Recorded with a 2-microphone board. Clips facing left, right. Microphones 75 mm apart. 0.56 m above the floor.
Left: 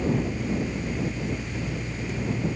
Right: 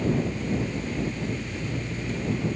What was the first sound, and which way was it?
Only background noise.